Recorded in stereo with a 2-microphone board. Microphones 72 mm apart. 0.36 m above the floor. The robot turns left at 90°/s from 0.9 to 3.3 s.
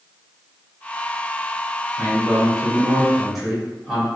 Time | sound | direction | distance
2.0 | a man speaking | 55° right | 1.6 m